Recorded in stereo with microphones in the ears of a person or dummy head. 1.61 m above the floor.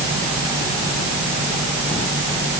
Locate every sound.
Only background noise.